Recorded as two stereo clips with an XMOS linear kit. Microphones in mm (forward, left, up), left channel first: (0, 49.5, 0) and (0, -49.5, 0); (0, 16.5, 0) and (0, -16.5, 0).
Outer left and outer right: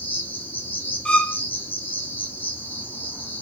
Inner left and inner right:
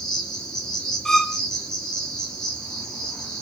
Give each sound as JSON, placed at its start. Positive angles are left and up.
{"t": 0.0, "sound": "an insect", "side_deg": 15, "distance_m": 1.1}
{"t": 1.1, "sound": "a violin", "side_deg": 10, "distance_m": 0.6}